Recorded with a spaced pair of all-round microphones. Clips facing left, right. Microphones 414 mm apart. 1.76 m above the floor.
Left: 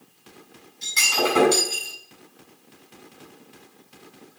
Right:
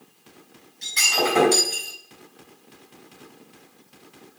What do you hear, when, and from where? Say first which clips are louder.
0.8 s breaking glass: even; 20° left (ahead or behind), 4.5 m